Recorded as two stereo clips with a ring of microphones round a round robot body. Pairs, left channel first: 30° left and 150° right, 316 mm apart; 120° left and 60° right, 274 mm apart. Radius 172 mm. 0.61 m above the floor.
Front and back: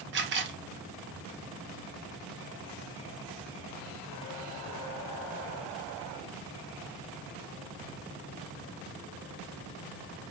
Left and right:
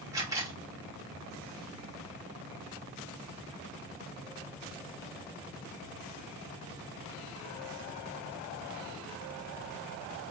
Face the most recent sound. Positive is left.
turn(degrees=-130)